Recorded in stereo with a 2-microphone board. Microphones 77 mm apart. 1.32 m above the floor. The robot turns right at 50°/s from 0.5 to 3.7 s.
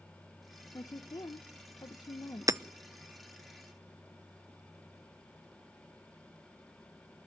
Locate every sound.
0.7 s a woman speaking: 45° left, 1.1 m; by 2.6 s 140° left, 1.1 m
2.5 s hammering: 45° right (ahead or behind), 0.7 m; by 2.6 s 40° right (ahead or behind), 0.7 m